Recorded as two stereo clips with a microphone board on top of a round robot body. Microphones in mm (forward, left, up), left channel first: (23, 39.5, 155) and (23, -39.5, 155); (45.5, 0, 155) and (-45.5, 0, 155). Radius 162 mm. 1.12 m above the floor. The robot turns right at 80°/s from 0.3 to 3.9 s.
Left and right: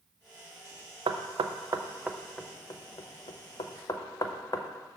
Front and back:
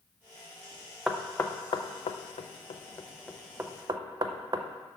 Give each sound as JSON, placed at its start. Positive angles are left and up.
{"t": 1.1, "sound": "knocking", "azimuth_deg": -95, "distance_m": 0.6}